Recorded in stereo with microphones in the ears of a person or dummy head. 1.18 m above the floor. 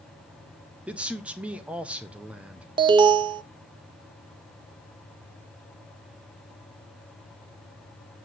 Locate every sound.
0.9 s a man speaking: 5° right (ahead or behind), 0.6 m
2.8 s an alarm: 25° right (ahead or behind), 0.5 m